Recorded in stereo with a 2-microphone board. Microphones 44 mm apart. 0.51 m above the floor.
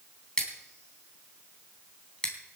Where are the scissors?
20° left (ahead or behind), 3.5 m.